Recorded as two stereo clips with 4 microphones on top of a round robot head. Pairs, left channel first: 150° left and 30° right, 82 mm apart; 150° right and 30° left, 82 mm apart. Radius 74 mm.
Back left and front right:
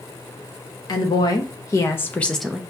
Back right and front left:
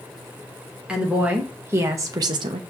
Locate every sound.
0.9 s a woman speaking: 110° left, 1.4 m; by 2.6 s 45° left, 0.5 m